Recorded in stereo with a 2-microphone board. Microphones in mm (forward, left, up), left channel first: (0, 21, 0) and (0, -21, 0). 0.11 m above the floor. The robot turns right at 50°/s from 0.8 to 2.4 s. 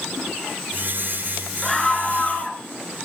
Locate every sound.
1.6 s a scream: 15° left, 1.2 m; by 2.6 s 55° left, 1.2 m